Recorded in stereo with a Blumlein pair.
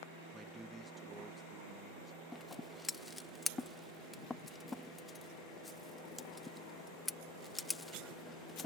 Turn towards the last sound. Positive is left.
turn(degrees=10)